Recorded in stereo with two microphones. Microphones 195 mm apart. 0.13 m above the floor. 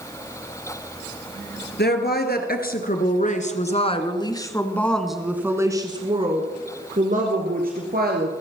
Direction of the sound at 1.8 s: 55° left (ahead or behind).